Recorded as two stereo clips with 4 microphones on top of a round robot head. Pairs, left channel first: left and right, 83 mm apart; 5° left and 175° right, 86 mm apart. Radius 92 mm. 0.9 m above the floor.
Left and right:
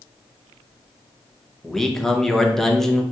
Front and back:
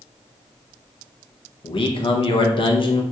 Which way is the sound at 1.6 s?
5° left.